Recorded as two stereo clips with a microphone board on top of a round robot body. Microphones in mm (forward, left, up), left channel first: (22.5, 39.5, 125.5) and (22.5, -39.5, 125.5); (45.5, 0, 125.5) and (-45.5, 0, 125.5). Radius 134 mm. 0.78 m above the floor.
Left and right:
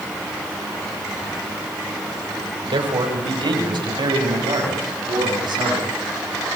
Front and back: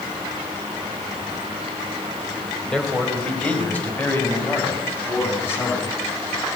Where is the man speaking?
85° right, 5 m; by 5.9 s 65° right, 9 m.